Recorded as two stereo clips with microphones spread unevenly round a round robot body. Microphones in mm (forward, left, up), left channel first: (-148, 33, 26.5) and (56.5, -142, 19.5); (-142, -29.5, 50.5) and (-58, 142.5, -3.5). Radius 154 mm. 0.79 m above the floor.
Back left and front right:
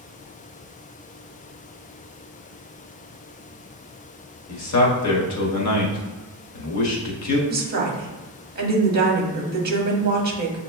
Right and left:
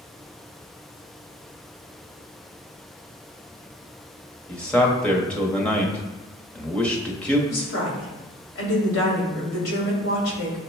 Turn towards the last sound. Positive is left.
turn(degrees=-90)